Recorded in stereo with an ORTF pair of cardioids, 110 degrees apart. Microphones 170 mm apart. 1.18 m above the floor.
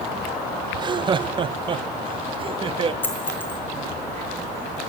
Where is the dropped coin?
10° left, 3 m.